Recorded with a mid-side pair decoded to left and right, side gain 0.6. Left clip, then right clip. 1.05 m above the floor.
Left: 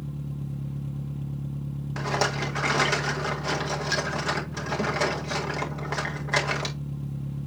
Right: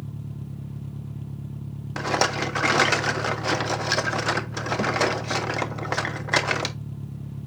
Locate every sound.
0.0 s an engine running: straight ahead, 1.2 m
2.0 s a rattle: 30° right, 1.4 m